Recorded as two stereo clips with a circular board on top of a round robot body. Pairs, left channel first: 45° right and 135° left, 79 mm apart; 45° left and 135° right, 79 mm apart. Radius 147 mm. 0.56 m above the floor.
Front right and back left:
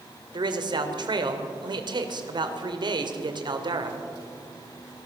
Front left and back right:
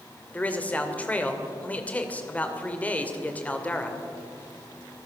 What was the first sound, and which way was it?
A man speaking, 115° left.